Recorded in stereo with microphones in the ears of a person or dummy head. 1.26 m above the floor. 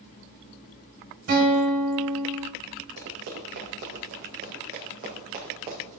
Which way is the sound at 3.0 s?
65° right (ahead or behind).